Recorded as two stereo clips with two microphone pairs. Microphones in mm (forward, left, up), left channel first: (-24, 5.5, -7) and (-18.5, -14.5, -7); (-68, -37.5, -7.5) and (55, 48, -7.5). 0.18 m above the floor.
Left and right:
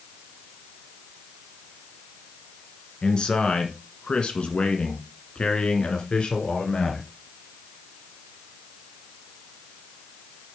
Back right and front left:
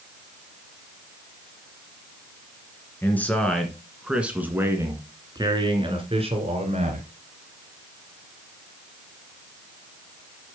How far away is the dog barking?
No dog barking in this recording.